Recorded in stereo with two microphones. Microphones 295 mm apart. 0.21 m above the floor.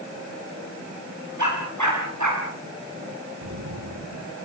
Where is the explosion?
75° right (ahead or behind), 3 m.